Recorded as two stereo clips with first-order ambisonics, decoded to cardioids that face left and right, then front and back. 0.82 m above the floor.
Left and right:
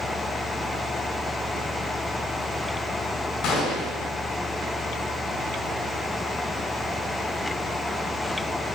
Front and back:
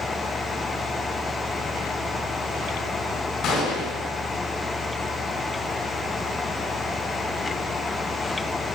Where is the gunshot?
45° left, 4 m.